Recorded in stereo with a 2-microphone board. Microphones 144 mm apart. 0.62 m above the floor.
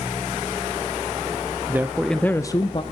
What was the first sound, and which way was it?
A man speaking, 15° right (ahead or behind).